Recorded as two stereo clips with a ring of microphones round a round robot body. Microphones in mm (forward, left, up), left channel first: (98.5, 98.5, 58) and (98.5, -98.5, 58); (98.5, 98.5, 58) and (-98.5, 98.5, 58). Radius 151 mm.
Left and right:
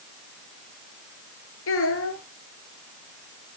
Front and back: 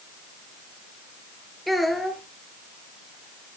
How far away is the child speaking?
About 5 m.